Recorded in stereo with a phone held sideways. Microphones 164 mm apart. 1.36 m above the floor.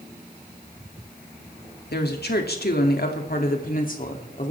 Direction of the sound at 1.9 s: 80° left.